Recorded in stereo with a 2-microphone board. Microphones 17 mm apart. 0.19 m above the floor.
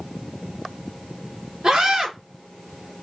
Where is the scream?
40° right (ahead or behind), 2.5 m.